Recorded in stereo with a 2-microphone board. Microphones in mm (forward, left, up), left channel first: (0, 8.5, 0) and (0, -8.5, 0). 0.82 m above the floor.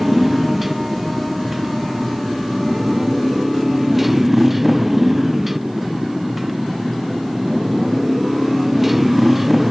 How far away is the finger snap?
I don't hear a finger snap.